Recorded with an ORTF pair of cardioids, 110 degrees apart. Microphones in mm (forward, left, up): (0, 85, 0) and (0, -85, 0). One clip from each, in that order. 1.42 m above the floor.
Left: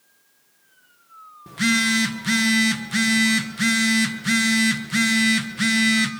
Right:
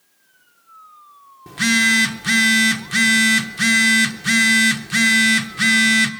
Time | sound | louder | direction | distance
1.5 | a phone buzzing | right 5 dB | 15° right | 0.9 m